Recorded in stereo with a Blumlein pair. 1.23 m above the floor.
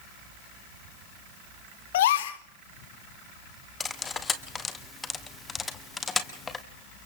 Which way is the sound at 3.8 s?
15° left.